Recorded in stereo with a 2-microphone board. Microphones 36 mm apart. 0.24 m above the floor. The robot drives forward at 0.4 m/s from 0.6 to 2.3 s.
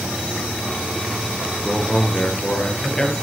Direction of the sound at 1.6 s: 25° left (ahead or behind).